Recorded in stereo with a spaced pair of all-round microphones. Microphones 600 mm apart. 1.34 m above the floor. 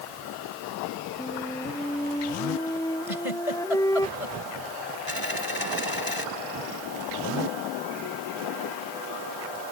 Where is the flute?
5° left (ahead or behind).